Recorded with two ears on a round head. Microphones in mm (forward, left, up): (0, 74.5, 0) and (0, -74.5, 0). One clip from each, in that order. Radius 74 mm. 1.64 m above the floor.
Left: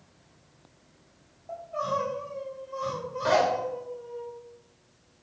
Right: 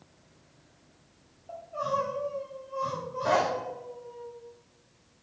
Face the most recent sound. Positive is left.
turn(degrees=35)  # may be behind; listen again after turning